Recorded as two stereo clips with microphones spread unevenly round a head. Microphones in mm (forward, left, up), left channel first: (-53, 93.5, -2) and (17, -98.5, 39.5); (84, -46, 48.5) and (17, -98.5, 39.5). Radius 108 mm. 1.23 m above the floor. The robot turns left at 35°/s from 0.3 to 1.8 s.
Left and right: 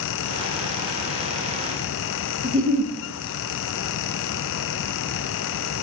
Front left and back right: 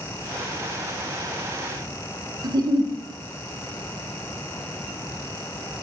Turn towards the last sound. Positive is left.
turn(degrees=-105)